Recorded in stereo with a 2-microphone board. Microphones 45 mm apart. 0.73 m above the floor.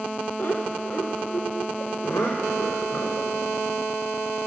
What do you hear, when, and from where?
0.4 s laughter: 50° left (ahead or behind), 2.5 m; by 3.3 s 80° left, 4 m